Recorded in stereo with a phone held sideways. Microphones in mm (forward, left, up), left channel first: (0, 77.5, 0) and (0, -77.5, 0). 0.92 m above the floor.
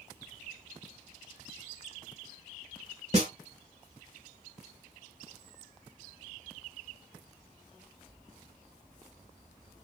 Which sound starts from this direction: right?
A snare drum, at 3.1 s.